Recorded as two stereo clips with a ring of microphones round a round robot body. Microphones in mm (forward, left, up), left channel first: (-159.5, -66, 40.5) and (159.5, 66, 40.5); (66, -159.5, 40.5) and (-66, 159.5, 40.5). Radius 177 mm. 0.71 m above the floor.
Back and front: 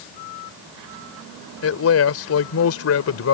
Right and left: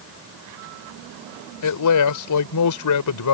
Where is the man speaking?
105° right.